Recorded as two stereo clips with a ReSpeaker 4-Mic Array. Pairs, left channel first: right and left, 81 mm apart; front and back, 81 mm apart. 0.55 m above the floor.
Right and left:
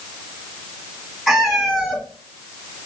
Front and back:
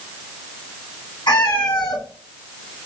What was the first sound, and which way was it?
A cat meowing, 5° left.